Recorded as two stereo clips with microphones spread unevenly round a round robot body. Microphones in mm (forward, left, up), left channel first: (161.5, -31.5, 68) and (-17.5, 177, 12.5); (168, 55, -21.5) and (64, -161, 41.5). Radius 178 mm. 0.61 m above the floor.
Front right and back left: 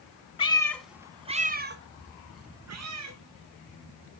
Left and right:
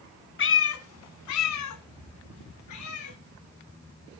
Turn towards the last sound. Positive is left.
turn(degrees=105)